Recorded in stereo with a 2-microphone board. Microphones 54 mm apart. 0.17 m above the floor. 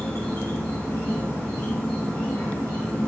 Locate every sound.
0.0 s an insect: 45° left (ahead or behind), 1.7 m